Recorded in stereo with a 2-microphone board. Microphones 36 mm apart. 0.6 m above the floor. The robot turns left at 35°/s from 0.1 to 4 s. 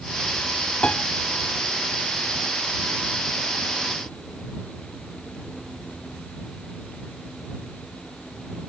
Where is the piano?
30° left (ahead or behind); by 1.0 s 35° left (ahead or behind).